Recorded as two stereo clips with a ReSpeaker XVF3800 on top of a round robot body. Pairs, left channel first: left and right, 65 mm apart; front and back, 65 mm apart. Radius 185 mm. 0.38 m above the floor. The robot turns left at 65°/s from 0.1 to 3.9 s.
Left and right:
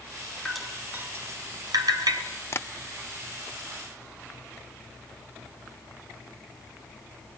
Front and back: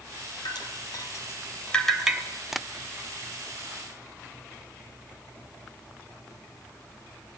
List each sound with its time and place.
0.5 s dripping: 10° left, 4 m; by 2.2 s 105° right, 4 m
2.5 s tapping: 95° left, 1.0 m; by 2.7 s 85° left, 1.0 m